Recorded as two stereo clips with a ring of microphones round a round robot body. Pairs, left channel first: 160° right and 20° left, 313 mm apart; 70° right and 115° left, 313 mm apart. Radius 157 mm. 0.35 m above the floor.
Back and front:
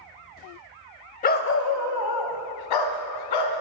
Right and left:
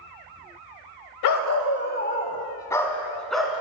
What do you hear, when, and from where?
1.2 s a dog barking: 90° right, 0.6 m; by 3.6 s 160° right, 1.6 m